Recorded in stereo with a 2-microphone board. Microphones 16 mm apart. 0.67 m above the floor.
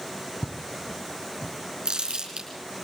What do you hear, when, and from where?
0.4 s footsteps: 65° left (ahead or behind), 1.6 m; by 1.5 s 55° left (ahead or behind), 1.4 m
1.9 s crumpling: 75° right (ahead or behind), 5 m